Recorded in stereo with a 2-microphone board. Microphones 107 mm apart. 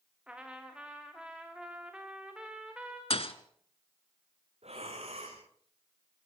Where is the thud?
65° left (ahead or behind), 1.2 m.